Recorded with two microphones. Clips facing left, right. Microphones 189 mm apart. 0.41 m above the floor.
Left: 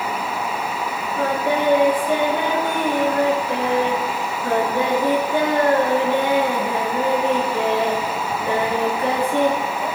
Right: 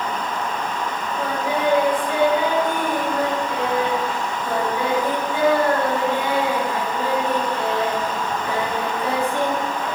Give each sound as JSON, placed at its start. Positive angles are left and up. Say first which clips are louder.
{"t": 1.2, "sound": "singing", "louder": "left 4 dB", "side_deg": 60, "distance_m": 4.0}